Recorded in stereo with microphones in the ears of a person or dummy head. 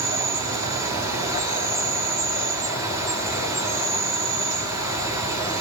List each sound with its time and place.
0.0 s an insect: 20° right (ahead or behind), 3 m